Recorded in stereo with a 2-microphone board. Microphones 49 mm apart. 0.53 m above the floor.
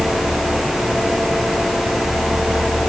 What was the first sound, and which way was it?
Only background noise.